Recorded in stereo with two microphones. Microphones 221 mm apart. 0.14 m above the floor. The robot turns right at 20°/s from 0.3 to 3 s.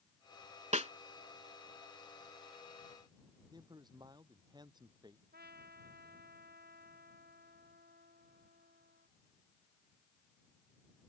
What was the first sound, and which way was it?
A snare drum, 30° right (ahead or behind).